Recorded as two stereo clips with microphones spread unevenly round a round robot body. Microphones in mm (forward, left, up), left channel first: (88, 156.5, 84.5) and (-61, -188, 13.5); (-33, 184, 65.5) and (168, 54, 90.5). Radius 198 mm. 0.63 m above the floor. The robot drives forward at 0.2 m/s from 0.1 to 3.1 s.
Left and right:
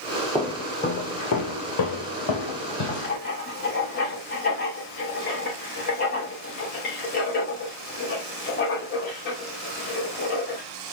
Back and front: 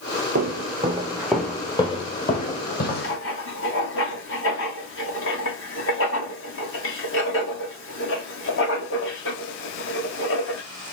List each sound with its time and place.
0.3 s footsteps: 10° right, 0.9 m; by 3.2 s 95° left, 1.8 m
3.0 s writing: 135° left, 1.4 m